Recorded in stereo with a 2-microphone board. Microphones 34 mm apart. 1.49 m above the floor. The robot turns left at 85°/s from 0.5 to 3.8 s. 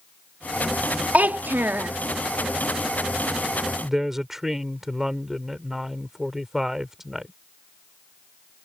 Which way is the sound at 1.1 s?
45° right.